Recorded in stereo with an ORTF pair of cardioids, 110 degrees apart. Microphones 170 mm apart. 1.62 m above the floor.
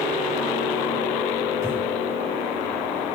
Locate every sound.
1.6 s breathing: 20° right, 5 m